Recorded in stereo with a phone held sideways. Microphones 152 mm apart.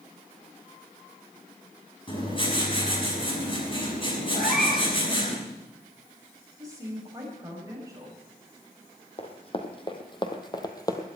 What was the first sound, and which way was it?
Writing, 35° left (ahead or behind).